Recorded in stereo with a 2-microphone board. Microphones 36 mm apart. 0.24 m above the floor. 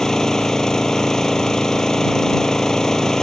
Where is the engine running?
15° left (ahead or behind).